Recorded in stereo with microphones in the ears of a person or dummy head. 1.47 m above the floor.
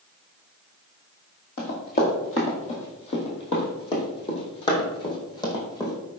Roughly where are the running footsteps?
Left.